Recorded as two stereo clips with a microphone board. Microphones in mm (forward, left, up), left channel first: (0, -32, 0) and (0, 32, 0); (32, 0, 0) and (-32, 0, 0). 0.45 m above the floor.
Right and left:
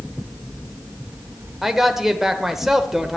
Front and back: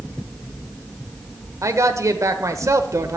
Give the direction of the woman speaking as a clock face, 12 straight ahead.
6 o'clock.